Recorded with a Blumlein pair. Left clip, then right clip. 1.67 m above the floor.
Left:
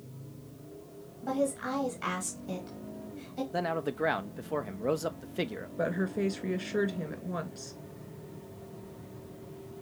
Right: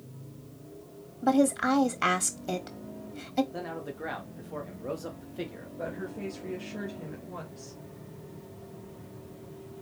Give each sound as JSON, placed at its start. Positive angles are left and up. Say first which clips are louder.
{"t": 1.2, "sound": "a woman speaking", "louder": "right 6 dB", "azimuth_deg": -55, "distance_m": 1.3}
{"t": 3.5, "sound": "a man speaking", "louder": "left 6 dB", "azimuth_deg": 65, "distance_m": 1.1}
{"t": 5.8, "sound": "a woman speaking", "louder": "left 6 dB", "azimuth_deg": 60, "distance_m": 3.0}